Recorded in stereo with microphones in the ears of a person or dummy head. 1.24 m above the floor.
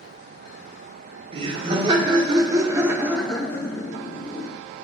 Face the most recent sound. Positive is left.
turn(degrees=35)  # may be behind; listen again after turning